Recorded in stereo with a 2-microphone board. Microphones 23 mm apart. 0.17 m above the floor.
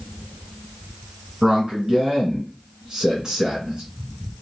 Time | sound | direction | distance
1.4 | a man speaking | 35° right (ahead or behind) | 1.9 m